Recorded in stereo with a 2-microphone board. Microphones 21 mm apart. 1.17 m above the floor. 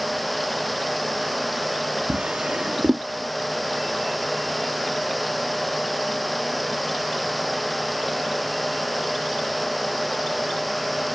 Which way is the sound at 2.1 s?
70° right (ahead or behind).